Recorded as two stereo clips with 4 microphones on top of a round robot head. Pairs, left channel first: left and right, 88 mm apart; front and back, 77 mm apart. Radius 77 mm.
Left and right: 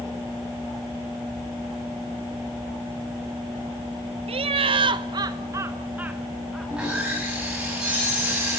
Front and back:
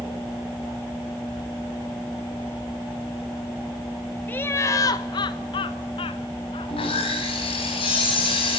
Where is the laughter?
75° right, 1.0 m; by 6.7 s straight ahead, 1.5 m.